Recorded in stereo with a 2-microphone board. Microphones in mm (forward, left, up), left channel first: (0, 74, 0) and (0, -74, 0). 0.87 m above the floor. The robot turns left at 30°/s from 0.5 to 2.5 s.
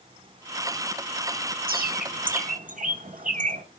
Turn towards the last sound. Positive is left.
turn(degrees=-60)  # may be behind; listen again after turning